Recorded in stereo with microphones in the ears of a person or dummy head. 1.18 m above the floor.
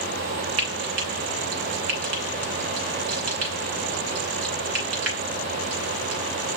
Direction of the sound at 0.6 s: 50° right (ahead or behind).